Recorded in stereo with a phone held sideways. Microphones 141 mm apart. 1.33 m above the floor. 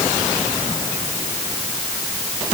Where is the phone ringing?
No phone ringing in this recording.